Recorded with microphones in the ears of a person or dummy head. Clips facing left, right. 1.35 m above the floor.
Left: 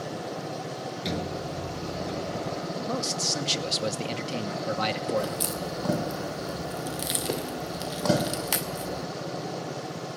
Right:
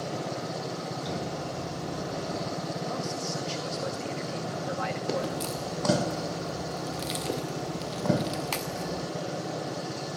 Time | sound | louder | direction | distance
1.1 | a sliding door | left 4 dB | 30° left (ahead or behind) | 4 m
2.8 | a man speaking | left 2 dB | 50° left (ahead or behind) | 2 m
5.2 | a crack | left 2 dB | 15° left (ahead or behind) | 1.0 m